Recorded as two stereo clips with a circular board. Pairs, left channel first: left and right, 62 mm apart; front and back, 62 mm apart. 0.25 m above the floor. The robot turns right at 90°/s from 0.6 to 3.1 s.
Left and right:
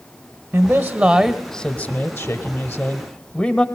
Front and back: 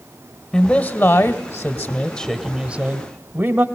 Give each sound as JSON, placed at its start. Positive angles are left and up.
{"t": 0.5, "sound": "a man speaking", "azimuth_deg": -65, "distance_m": 1.0}